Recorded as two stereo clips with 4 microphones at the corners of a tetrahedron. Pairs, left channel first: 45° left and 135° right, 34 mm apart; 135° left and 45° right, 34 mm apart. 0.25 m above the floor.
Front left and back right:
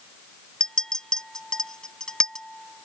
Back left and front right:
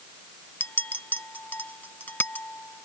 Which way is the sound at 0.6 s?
115° left.